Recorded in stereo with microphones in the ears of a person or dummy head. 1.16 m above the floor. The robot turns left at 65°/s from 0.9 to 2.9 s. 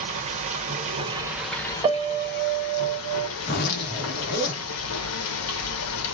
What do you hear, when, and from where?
0.0 s running water: 145° right, 1.1 m; by 6.2 s 85° left, 1.1 m
1.8 s a piano: 30° right, 0.7 m; by 3.3 s 95° right, 0.7 m
3.4 s a zipper: 50° left (ahead or behind), 1.3 m